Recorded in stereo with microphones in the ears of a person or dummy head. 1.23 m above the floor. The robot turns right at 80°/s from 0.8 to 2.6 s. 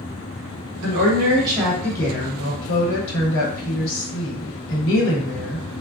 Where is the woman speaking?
70° right, 1.2 m; by 5.7 s 70° left, 1.2 m.